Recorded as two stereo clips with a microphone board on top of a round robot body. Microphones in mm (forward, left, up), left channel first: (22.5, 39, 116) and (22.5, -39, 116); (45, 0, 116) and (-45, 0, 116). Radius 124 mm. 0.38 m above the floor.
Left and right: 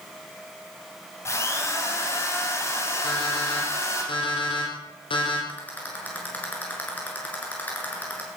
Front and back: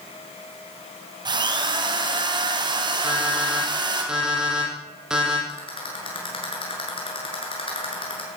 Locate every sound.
1.2 s a drill: 145° left, 4.5 m
3.0 s an alarm clock: 100° left, 8 m
5.5 s a rattle: 20° left, 7.5 m